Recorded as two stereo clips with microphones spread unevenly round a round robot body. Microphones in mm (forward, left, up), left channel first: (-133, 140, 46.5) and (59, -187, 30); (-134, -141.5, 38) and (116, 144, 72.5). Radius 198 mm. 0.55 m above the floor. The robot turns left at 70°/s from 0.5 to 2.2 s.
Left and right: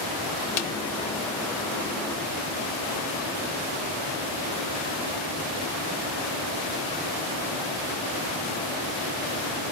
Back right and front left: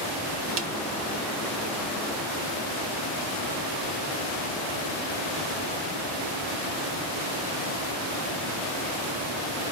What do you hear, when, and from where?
0.6 s a snare drum: 110° left, 1.3 m; by 0.8 s 95° left, 1.3 m